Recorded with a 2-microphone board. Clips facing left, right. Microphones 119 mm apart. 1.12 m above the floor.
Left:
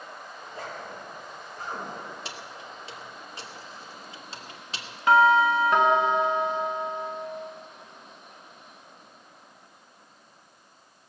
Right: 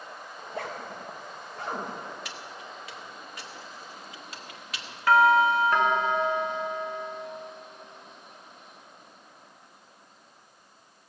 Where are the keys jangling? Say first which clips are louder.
Left 1 dB; 30° left (ahead or behind), 1.2 m.